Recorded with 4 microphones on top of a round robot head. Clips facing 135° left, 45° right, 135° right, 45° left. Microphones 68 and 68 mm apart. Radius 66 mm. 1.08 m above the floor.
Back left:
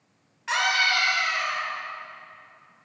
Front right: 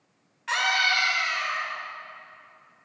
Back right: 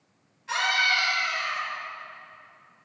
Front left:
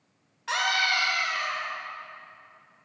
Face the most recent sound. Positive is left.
turn(degrees=50)